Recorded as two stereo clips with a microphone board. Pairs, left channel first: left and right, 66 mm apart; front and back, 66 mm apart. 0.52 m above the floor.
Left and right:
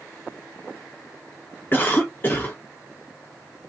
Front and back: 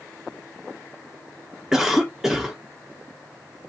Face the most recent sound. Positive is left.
turn(degrees=100)